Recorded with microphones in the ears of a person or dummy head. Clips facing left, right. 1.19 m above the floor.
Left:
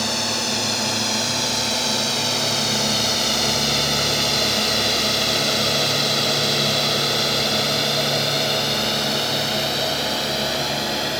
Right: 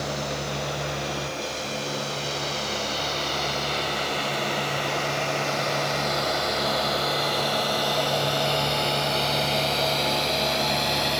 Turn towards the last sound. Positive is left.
turn(degrees=5)  # may be behind; listen again after turning